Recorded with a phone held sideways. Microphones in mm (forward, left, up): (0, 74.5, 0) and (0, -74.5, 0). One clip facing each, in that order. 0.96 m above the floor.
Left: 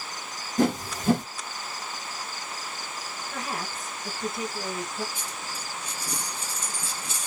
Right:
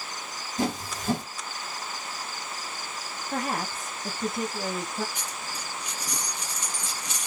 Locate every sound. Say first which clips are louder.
0.6 s a whoosh: left 5 dB; 55° left (ahead or behind), 1.1 m
3.3 s a woman speaking: right 5 dB; 45° right (ahead or behind), 0.8 m
5.2 s a dropped coin: even; 30° left (ahead or behind), 1.4 m